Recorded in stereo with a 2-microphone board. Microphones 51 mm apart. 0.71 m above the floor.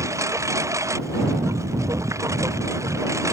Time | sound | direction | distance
0.0 | a lawn mower | 85° right | ?